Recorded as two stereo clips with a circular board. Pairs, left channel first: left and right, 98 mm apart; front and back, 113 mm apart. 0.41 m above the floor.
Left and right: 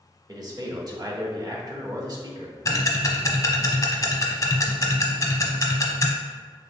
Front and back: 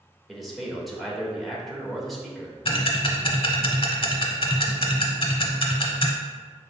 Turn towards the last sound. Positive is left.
turn(degrees=35)